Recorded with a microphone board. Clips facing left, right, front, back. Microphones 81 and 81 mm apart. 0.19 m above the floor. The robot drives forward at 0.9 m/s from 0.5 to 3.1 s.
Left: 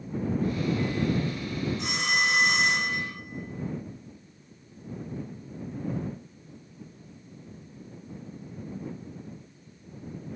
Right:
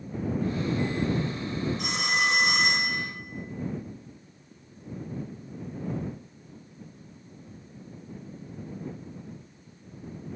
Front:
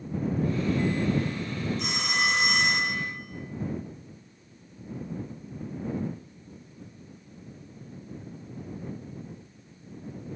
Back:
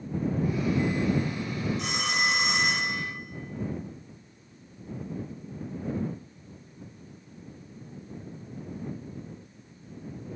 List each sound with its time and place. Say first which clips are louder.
1.8 s a phone ringing: left 1 dB, even; 90° right, 4 m; by 3.0 s 105° right, 4 m